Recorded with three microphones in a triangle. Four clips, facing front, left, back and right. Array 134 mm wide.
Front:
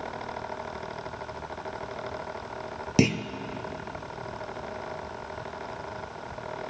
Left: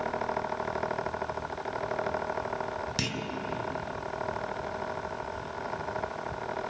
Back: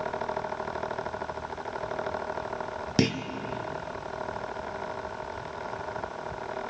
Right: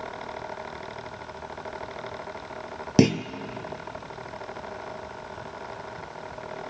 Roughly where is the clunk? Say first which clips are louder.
Right 14 dB, front 3 dB; right.